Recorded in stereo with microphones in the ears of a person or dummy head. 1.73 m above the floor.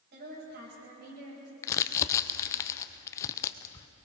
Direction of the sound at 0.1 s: 60° right (ahead or behind).